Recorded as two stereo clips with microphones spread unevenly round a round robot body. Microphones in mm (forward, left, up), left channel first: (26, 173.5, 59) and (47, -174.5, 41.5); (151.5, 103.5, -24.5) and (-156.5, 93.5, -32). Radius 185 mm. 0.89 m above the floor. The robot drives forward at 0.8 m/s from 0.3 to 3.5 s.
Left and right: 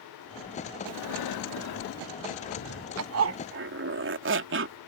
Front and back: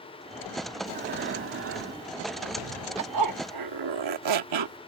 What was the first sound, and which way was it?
Breathing, 125° left.